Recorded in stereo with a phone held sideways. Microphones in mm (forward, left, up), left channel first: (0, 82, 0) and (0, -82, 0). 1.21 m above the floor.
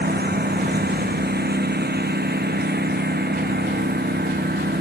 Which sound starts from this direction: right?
A lawn mower, at 0.0 s.